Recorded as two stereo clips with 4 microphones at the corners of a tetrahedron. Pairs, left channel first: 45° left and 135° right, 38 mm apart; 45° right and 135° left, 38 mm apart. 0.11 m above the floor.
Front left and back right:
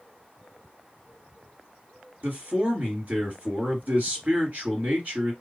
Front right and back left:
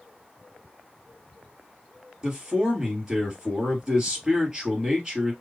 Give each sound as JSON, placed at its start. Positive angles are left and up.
{"t": 2.2, "sound": "a man speaking", "azimuth_deg": -155, "distance_m": 1.9}